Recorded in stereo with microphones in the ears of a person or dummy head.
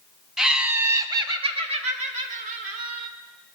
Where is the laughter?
5° right (ahead or behind), 1.0 m; by 3.1 s 50° right (ahead or behind), 2.0 m.